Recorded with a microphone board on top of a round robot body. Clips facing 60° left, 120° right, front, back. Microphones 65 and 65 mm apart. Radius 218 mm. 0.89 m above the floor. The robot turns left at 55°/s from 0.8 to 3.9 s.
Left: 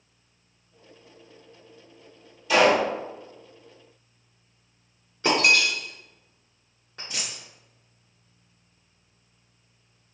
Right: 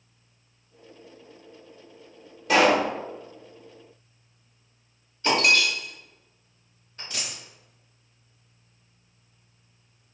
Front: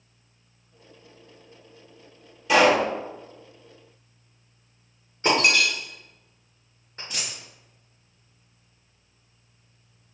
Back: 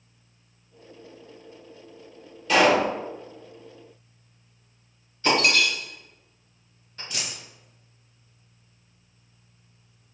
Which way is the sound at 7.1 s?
75° left.